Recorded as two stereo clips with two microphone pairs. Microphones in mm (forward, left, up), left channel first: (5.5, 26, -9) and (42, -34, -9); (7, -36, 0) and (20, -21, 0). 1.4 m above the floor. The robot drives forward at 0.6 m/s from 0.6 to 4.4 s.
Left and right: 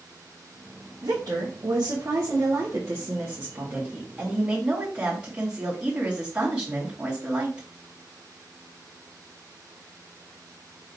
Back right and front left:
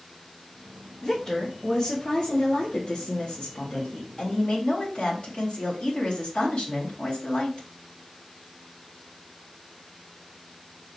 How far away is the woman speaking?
About 1.5 m.